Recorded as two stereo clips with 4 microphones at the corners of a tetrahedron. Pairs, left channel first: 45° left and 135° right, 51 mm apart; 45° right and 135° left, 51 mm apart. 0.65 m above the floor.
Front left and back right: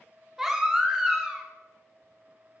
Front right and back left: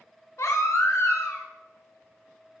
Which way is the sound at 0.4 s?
55° right.